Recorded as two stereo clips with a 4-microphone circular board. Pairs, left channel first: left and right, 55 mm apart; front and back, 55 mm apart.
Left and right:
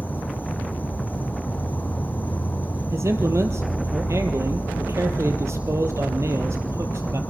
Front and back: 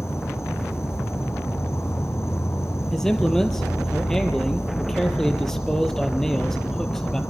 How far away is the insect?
About 1.0 m.